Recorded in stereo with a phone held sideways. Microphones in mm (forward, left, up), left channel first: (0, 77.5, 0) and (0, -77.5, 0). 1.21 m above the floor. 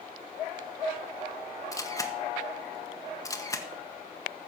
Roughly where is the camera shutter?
Left.